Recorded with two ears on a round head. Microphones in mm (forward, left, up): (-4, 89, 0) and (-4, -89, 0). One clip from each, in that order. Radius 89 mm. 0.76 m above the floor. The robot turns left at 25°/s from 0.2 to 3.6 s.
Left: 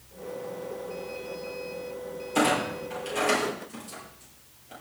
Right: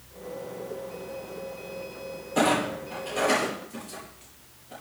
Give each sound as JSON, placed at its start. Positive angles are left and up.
{"t": 2.4, "sound": "a clunk", "side_deg": 60, "distance_m": 8.5}